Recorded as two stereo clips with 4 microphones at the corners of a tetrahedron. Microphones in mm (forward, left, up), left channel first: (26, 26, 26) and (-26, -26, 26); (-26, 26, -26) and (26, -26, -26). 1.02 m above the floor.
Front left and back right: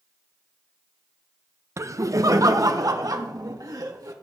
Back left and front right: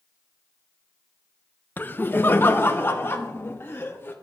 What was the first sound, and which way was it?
Laughter, 170° right.